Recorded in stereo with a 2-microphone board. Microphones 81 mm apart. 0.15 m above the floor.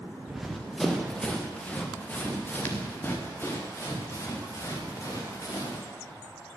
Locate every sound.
0.3 s running footsteps: 5° right (ahead or behind), 2 m; by 5.9 s 40° left (ahead or behind), 5.5 m